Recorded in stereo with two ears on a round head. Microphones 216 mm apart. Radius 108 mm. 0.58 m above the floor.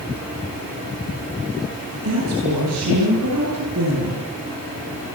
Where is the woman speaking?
70° right (ahead or behind), 9.5 m; by 4.3 s 75° right (ahead or behind), 9.5 m.